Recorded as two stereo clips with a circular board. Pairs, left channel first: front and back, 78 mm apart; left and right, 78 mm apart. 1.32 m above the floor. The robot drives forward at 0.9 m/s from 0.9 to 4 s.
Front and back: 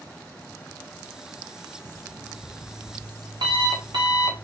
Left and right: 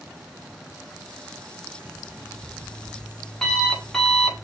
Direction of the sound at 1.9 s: 155° left.